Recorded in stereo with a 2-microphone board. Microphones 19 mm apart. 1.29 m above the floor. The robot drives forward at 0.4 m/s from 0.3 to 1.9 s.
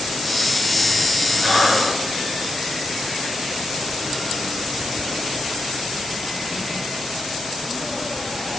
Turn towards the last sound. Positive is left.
turn(degrees=-60)  # may be behind; listen again after turning